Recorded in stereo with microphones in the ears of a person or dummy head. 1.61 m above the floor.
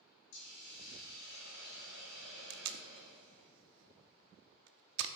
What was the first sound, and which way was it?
A hiss, 70° left (ahead or behind).